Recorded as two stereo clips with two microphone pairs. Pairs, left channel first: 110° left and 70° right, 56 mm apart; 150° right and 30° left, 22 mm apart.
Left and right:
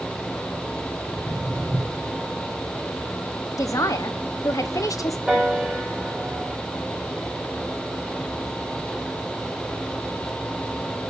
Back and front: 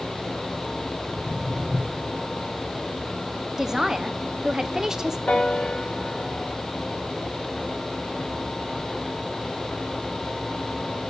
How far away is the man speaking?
About 0.9 m.